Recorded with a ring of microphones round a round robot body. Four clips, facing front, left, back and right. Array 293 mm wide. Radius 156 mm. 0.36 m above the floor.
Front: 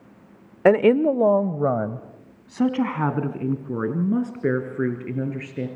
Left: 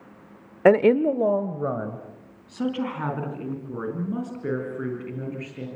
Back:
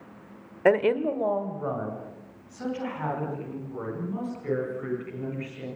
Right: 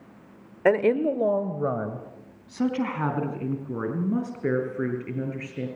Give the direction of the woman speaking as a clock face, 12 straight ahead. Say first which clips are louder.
Left 4 dB, front 6 dB; 10 o'clock.